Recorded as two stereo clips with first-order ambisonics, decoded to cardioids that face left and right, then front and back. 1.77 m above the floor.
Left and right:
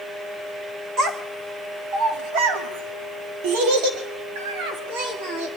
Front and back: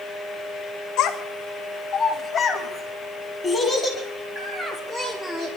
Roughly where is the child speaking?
Ahead right.